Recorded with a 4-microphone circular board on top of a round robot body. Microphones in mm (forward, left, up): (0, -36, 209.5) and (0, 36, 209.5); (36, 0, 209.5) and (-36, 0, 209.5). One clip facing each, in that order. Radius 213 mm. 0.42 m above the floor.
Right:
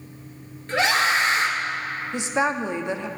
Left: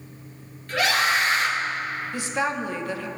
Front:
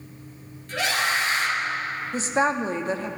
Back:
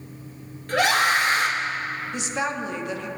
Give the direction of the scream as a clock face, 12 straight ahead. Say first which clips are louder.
Right 1 dB, back 5 dB; 5 o'clock.